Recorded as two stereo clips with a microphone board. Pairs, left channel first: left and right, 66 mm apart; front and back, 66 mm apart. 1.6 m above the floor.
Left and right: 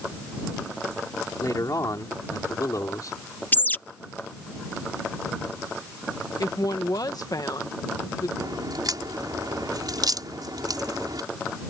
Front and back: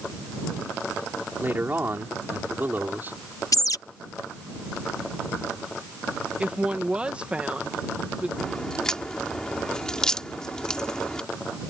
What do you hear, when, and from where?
1.4 s a man speaking: 120° left
3.5 s a bird: 25° left
6.4 s a woman speaking: 110° left
8.4 s a crack: 80° right